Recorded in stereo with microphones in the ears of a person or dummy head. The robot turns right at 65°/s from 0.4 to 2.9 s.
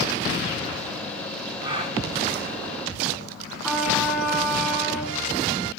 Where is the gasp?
25° right (ahead or behind), 4.5 m; by 2.0 s 45° right (ahead or behind), 4.5 m.